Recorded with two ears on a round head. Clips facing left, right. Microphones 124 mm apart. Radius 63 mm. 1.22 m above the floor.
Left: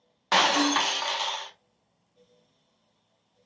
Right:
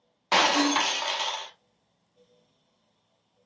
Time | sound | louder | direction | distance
0.3 | breaking glass | even | 10° right (ahead or behind) | 0.8 m